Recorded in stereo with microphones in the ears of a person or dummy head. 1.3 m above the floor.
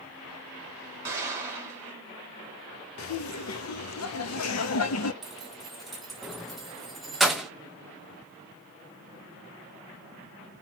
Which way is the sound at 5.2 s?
Centre (ahead or behind).